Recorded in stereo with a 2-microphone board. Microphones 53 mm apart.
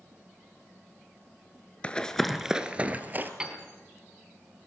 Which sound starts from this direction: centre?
A piano, at 3.4 s.